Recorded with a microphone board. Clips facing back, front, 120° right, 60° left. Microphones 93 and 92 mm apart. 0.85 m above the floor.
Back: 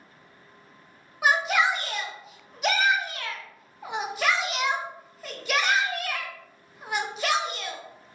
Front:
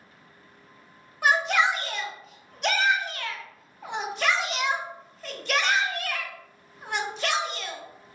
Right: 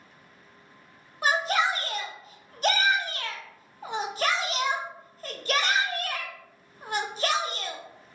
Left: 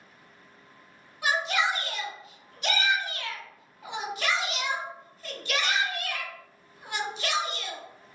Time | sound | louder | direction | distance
1.2 | a shout | even, right 2 dB | 95° right | 0.6 m